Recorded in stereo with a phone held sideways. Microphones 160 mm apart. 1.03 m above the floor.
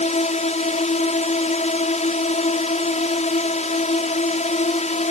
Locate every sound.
0.0 s a drone: 45° left (ahead or behind)